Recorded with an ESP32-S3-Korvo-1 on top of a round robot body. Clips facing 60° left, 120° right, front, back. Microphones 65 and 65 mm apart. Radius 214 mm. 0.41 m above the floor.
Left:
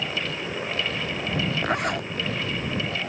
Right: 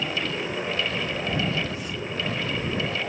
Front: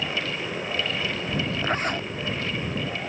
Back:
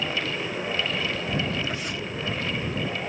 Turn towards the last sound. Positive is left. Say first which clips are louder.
# left 6 dB, front 5 dB
turn(degrees=45)